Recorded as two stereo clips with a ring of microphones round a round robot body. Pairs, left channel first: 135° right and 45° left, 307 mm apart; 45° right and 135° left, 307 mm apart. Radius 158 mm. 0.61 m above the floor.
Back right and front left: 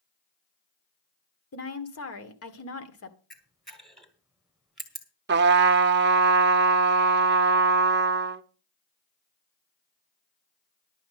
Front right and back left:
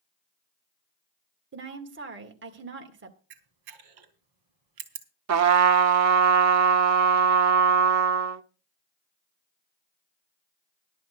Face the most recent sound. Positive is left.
turn(degrees=100)